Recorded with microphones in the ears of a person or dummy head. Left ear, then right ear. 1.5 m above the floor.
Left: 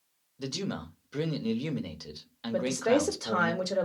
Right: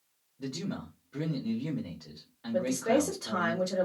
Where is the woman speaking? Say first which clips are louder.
Left 1 dB; 70° left (ahead or behind), 0.8 m.